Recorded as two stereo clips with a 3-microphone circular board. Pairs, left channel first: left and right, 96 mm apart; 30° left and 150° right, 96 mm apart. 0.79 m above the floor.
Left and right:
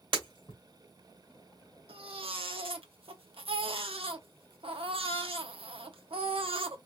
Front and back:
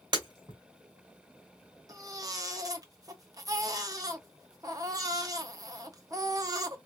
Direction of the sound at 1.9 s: 100° right.